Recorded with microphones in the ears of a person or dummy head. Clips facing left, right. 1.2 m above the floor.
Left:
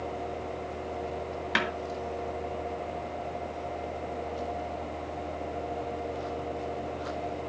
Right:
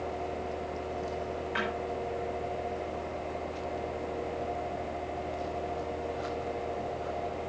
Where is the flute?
No flute in this recording.